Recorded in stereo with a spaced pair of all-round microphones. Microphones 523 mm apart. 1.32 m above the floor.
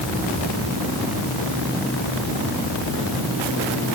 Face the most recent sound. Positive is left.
No sound to turn to.